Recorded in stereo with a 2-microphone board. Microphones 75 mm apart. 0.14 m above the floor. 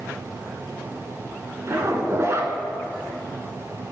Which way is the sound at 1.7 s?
35° right (ahead or behind).